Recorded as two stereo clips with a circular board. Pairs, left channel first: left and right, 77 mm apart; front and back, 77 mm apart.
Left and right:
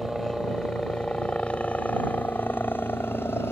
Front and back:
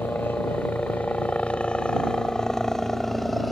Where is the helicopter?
5° left; by 3.5 s 90° left.